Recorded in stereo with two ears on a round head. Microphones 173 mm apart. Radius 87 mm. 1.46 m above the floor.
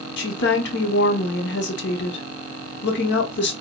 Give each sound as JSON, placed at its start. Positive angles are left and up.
{"t": 0.2, "sound": "a woman speaking", "side_deg": 65, "distance_m": 0.9}